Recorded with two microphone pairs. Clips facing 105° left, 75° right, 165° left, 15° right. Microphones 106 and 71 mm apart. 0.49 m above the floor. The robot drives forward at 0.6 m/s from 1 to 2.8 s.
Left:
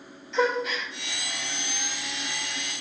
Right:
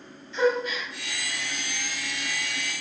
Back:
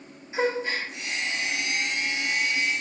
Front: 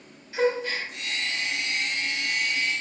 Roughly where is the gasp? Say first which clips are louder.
Right 1 dB, front 1 dB; left.